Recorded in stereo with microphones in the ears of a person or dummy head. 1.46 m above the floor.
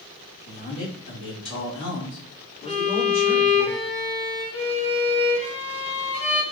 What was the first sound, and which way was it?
A man speaking, 65° left (ahead or behind).